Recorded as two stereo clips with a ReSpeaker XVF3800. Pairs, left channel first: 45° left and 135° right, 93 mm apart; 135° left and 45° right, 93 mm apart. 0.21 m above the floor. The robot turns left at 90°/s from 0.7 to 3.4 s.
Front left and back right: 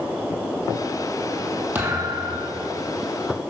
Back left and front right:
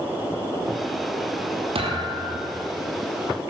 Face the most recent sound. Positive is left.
turn(degrees=145)